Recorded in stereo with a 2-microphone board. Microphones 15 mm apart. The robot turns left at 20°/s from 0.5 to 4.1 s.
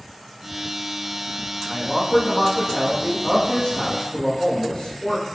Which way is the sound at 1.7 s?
90° left.